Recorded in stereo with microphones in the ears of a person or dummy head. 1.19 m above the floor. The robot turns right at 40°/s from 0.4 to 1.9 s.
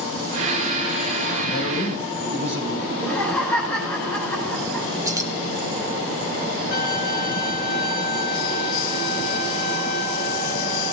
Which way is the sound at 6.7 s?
50° left (ahead or behind).